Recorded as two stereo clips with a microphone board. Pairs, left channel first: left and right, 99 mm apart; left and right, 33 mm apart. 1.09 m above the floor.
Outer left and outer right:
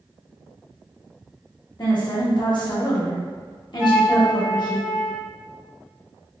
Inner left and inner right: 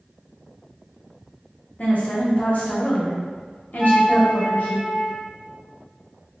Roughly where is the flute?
Right.